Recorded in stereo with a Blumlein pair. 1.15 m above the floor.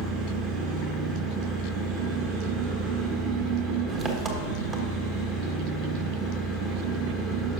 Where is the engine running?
25° right, 1.1 m.